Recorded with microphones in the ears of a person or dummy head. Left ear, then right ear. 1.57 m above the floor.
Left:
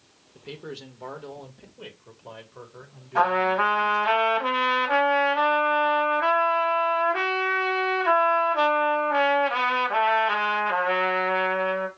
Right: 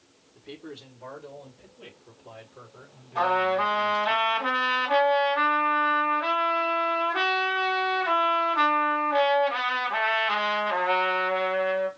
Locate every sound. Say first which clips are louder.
0.3 s a man speaking: left 4 dB; 70° left (ahead or behind), 1.3 m
3.1 s a trumpet: left 2 dB; 80° left, 2.5 m